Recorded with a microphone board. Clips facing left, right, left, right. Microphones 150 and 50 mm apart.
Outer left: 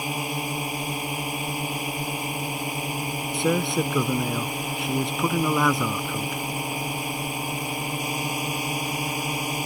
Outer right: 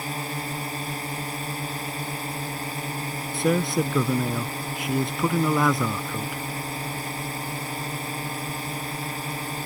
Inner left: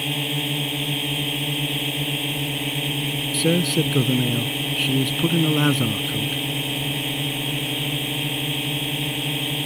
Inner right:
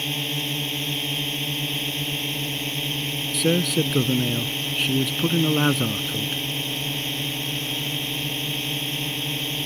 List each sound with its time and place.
0.0 s a drone: 15° left (ahead or behind)
3.3 s a man speaking: centre (ahead or behind)